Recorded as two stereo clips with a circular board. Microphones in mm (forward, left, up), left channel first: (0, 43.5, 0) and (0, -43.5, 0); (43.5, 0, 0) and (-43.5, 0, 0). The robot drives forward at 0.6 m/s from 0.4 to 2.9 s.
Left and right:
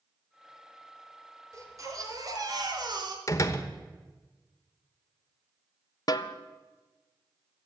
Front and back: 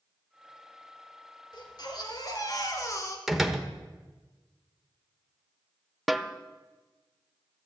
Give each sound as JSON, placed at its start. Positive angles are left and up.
{"t": 1.5, "sound": "a baby crying", "azimuth_deg": -35, "distance_m": 2.5}
{"t": 3.3, "sound": "a door slam", "azimuth_deg": 95, "distance_m": 1.1}
{"t": 6.1, "sound": "a snare drum", "azimuth_deg": 90, "distance_m": 0.7}